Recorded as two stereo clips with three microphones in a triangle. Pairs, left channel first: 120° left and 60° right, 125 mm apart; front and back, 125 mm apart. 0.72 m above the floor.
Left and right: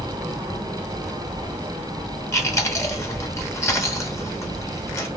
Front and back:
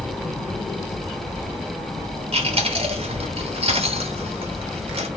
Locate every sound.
2.3 s chewing: straight behind, 1.1 m